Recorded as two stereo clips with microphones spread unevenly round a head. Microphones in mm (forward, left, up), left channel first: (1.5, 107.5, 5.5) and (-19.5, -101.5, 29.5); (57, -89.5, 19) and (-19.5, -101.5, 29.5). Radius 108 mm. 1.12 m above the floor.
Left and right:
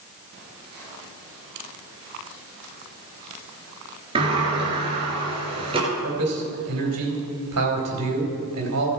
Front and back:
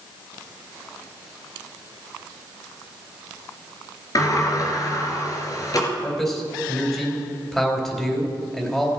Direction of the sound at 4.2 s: 35° right.